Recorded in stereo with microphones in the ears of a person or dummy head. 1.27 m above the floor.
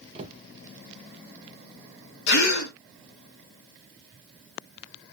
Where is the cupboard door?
30° right (ahead or behind), 0.5 m.